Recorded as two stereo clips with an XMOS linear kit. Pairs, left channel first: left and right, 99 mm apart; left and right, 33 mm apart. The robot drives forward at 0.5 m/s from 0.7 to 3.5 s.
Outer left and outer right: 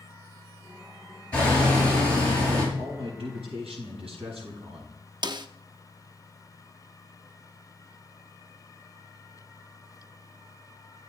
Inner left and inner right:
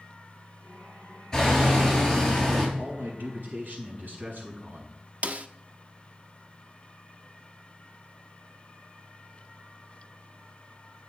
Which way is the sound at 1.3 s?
15° left (ahead or behind).